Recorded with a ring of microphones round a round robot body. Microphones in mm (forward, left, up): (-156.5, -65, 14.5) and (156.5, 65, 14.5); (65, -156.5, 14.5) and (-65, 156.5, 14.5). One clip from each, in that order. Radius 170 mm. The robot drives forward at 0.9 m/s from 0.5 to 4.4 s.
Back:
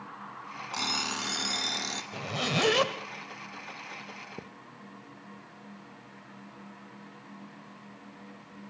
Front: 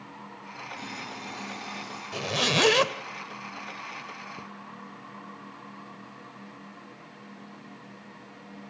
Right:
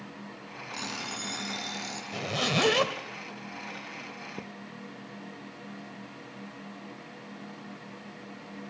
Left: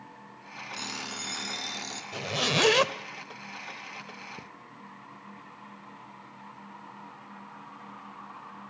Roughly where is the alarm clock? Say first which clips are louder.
Back 10 dB, right 1 dB; behind.